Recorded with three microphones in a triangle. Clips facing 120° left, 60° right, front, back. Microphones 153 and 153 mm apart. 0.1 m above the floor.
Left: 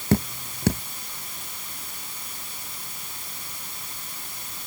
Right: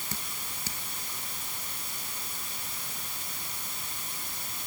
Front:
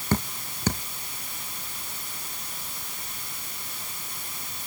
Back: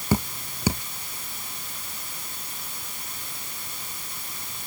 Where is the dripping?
100° left.